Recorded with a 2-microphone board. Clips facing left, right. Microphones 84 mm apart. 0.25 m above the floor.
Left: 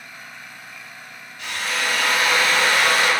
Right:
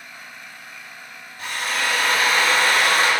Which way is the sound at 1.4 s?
40° right (ahead or behind).